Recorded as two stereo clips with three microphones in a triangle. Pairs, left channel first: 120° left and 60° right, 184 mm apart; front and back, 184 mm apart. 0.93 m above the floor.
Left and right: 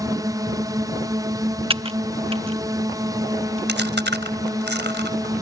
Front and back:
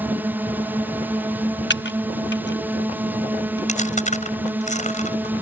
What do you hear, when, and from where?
0.0 s a drone: 110° right
1.7 s typing on a keyboard: straight ahead
3.7 s chewing: 50° right